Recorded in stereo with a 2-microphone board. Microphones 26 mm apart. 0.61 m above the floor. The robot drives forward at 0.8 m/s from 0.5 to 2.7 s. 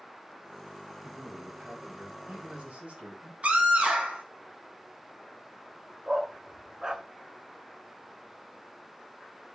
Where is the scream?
55° right (ahead or behind), 3 m.